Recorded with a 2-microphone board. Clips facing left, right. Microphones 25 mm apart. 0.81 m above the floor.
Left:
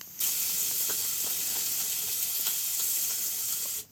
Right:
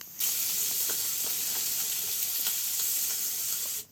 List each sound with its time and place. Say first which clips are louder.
0.2 s frying: even; 40° right (ahead or behind), 2.5 m